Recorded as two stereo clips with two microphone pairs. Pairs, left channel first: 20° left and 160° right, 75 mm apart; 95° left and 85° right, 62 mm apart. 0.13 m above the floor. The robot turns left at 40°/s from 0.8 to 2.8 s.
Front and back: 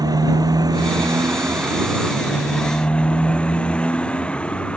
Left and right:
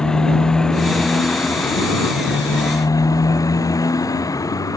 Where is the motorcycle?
175° left; by 4.8 s 95° left.